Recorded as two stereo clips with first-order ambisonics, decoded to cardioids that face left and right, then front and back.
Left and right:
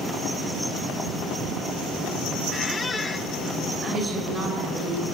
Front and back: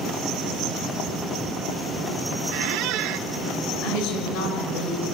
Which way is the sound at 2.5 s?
160° left.